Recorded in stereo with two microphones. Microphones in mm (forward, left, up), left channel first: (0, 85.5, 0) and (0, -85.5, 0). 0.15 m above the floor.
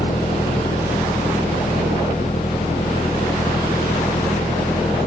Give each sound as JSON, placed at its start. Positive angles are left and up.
{"t": 0.0, "sound": "an engine running", "side_deg": 35}